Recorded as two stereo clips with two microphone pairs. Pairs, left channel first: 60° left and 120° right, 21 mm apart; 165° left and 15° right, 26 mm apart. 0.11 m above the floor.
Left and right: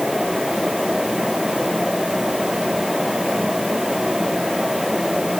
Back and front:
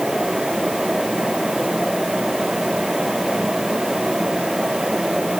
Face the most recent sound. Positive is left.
No sound to turn to.